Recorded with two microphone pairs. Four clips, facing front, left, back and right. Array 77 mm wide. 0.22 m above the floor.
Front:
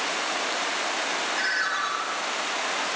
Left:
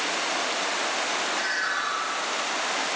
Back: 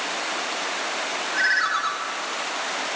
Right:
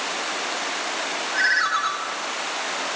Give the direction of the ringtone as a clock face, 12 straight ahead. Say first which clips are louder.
Right 6 dB, back 7 dB; 4 o'clock.